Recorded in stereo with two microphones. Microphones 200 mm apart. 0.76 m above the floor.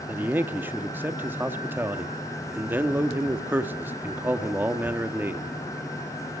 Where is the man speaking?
10° right (ahead or behind), 1.3 m.